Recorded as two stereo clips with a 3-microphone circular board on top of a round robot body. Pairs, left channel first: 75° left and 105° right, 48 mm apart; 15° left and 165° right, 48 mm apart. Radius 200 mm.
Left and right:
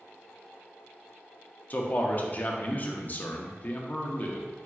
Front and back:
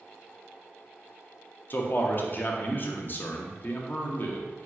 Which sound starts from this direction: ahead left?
A man speaking, at 1.7 s.